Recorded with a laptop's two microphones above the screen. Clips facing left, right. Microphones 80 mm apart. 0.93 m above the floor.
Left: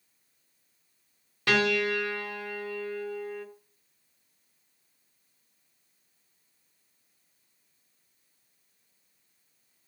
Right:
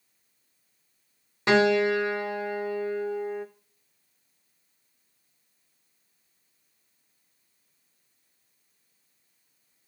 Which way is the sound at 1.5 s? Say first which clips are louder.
Right 5 dB; 25° right (ahead or behind).